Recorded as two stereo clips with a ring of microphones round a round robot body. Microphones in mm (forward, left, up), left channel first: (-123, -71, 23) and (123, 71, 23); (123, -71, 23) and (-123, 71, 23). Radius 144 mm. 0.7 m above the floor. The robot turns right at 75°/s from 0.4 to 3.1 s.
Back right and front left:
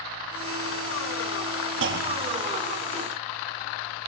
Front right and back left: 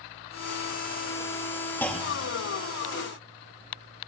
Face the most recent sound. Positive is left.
turn(degrees=150)